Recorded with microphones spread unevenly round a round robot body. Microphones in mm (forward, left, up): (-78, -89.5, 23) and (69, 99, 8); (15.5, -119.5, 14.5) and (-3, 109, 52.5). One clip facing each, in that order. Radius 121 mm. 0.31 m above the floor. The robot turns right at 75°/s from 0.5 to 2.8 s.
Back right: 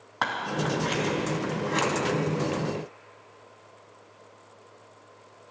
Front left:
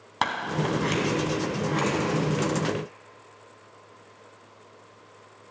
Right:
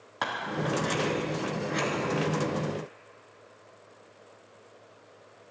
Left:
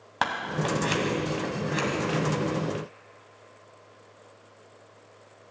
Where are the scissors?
80° left, 2 m; by 1.9 s 175° right, 2 m.